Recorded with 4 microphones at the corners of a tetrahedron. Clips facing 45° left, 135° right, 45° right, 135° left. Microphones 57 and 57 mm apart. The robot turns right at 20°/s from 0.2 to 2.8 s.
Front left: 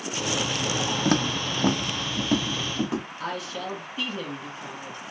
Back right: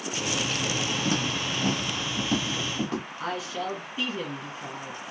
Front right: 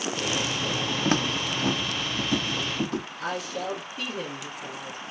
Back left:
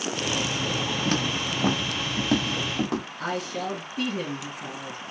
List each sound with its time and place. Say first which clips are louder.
1.1 s footsteps: front left 3 dB, front right 3 dB; 10° left, 0.5 m; by 3.1 s 125° left, 1.8 m
3.2 s a woman speaking: back right 1 dB, back left 1 dB; 145° left, 2.0 m